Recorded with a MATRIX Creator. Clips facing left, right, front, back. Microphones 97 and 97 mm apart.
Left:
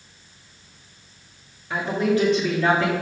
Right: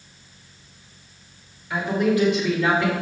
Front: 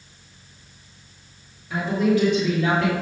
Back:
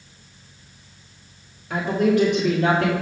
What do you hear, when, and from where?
1.7 s a woman speaking: 150° left, 2.5 m; by 2.9 s 140° left, 3 m